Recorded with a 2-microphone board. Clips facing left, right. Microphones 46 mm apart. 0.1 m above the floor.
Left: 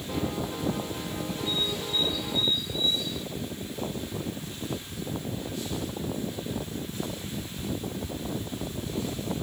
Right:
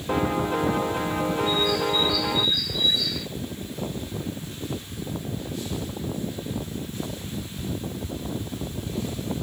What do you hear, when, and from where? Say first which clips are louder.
0.1 s a piano: right 8 dB; 50° right (ahead or behind)
1.5 s a bird: right 5 dB; 80° right